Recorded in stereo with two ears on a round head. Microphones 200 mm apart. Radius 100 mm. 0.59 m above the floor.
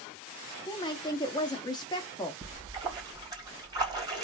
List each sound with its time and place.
0.7 s a woman speaking: 20° left (ahead or behind), 0.6 m
2.4 s a splash: 20° right (ahead or behind), 2 m